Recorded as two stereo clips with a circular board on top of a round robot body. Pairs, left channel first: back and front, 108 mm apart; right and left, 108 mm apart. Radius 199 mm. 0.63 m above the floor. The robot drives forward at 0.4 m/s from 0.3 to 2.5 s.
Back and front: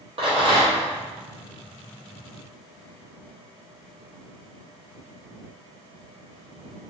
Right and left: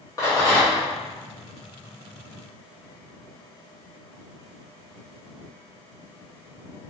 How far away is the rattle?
About 1.3 m.